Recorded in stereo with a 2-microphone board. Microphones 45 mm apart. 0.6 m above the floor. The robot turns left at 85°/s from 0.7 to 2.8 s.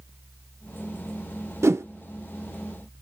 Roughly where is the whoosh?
Right.